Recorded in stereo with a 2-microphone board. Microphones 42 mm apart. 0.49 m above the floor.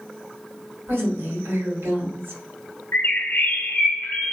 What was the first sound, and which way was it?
A woman speaking, 70° right (ahead or behind).